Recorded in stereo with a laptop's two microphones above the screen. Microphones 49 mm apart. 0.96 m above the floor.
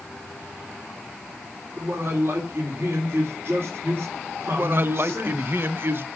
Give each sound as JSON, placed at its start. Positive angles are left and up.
{"t": 1.8, "sound": "a man speaking", "side_deg": -55, "distance_m": 2.5}
{"t": 4.5, "sound": "a man speaking", "side_deg": -50, "distance_m": 0.8}